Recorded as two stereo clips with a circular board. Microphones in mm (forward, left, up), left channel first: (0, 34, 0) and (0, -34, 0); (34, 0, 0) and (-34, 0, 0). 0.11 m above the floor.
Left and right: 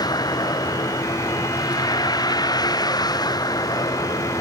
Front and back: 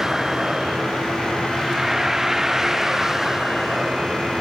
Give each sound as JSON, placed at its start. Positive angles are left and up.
{"t": 0.0, "sound": "a vehicle", "azimuth_deg": 95}